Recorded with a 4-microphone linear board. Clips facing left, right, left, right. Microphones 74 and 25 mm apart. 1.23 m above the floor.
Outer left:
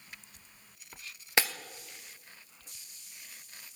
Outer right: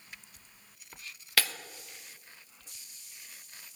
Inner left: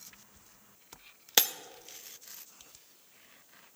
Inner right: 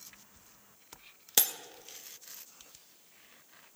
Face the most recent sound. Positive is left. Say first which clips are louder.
# outer left 2 dB, inner left 4 dB
turn(degrees=25)  # may be behind; listen again after turning